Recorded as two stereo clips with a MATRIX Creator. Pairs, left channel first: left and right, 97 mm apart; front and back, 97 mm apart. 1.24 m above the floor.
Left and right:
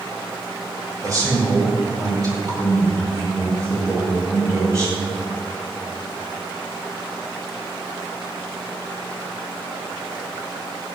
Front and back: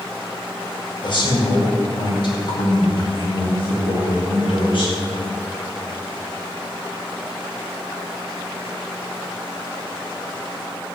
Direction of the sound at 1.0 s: 40° right.